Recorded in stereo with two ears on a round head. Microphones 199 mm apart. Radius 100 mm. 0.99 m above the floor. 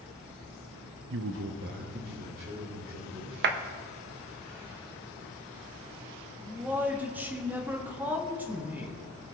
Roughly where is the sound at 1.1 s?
Right.